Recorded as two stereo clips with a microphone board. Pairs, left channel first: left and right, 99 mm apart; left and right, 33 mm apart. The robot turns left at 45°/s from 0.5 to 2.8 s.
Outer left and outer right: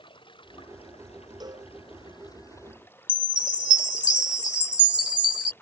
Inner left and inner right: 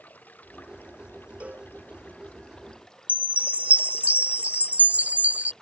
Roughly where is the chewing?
I don't hear chewing.